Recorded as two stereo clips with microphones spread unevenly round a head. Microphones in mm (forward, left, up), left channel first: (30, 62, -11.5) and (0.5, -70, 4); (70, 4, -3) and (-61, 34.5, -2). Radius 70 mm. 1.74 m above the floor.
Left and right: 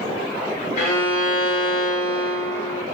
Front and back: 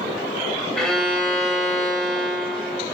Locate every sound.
0.8 s a violin: 70° left, 1.5 m